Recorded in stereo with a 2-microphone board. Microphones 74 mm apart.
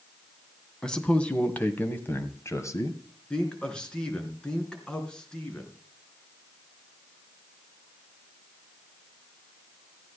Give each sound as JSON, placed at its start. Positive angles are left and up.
{"t": 0.8, "sound": "a man speaking", "side_deg": 10, "distance_m": 2.0}
{"t": 3.3, "sound": "a man speaking", "side_deg": 10, "distance_m": 3.5}